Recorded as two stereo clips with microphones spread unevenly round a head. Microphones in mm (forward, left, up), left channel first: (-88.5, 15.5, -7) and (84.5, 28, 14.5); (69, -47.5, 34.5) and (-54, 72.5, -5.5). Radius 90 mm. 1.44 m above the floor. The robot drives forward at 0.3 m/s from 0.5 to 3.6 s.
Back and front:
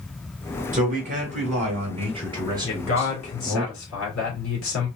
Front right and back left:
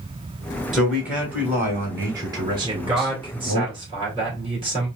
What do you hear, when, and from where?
0.7 s a man speaking: 50° left, 1.4 m; by 3.6 s 90° left, 1.0 m
2.6 s a man speaking: 155° right, 1.7 m; by 4.9 s 160° right, 2.0 m